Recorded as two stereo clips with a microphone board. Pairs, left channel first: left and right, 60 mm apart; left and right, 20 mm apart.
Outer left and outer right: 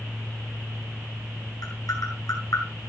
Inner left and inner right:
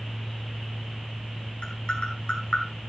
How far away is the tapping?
About 4.5 m.